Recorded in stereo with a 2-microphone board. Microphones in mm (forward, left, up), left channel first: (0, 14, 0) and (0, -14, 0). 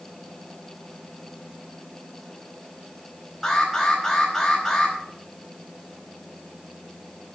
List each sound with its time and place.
3.4 s an alarm: 10° left (ahead or behind), 5 m